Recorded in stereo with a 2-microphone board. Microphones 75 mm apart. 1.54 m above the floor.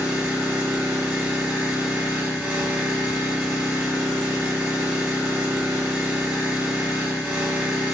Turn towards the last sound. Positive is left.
turn(degrees=-10)  # may be behind; listen again after turning